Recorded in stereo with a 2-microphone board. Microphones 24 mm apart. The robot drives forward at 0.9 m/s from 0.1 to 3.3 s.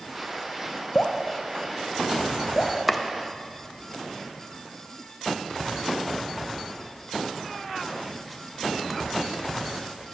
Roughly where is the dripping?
Left.